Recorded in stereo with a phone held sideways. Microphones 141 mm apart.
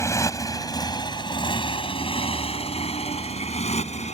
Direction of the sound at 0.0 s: 20° left (ahead or behind).